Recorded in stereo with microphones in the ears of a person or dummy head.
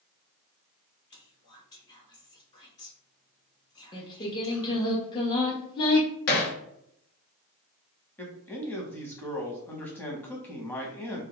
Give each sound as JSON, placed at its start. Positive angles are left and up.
{"t": 1.1, "sound": "whispering", "side_deg": 20, "distance_m": 0.8}
{"t": 3.9, "sound": "singing", "side_deg": 25, "distance_m": 0.7}
{"t": 6.3, "sound": "hammering", "side_deg": 50, "distance_m": 0.6}
{"t": 8.2, "sound": "a man speaking", "side_deg": 15, "distance_m": 0.6}